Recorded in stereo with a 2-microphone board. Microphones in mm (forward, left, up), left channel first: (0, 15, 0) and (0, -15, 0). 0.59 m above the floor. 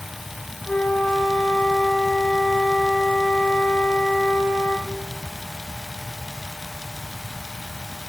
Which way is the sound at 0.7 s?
40° left (ahead or behind).